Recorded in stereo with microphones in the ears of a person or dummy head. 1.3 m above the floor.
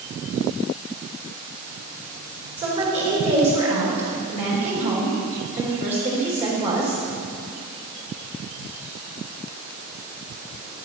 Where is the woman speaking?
30° right (ahead or behind), 4.5 m.